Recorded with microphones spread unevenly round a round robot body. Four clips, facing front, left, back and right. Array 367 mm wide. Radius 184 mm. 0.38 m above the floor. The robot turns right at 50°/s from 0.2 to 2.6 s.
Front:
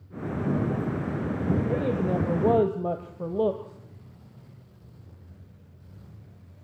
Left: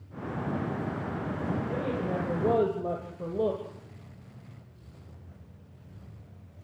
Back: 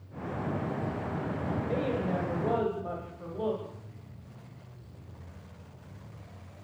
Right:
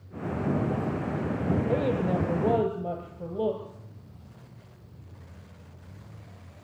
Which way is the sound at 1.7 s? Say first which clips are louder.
Right 5 dB, front 4 dB; 45° right.